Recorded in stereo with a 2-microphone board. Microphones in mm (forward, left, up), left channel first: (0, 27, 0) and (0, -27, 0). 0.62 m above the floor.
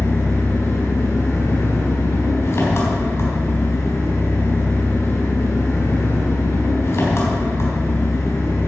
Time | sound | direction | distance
0.0 | an engine running | 55° left (ahead or behind) | 3.5 m